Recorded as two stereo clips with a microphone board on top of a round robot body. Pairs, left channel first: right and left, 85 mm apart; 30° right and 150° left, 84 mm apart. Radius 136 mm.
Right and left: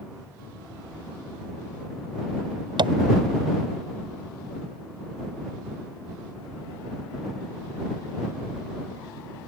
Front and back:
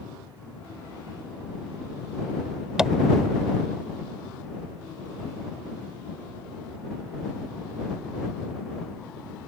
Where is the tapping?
65° left.